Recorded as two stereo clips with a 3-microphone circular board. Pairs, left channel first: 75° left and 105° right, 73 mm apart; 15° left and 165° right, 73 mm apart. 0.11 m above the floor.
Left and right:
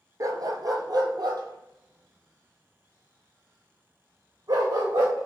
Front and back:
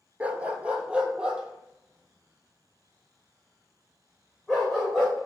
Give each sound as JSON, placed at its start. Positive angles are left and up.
{"t": 0.2, "sound": "a dog barking", "azimuth_deg": -100, "distance_m": 0.7}